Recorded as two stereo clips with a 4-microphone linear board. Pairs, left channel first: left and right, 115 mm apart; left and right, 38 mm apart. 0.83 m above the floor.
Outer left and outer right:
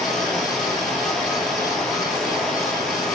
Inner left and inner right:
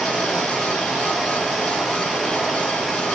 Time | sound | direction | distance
0.0 | running water | 5° left (ahead or behind) | 7 m